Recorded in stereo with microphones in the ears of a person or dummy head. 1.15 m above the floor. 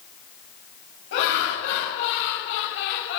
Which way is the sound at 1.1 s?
85° left.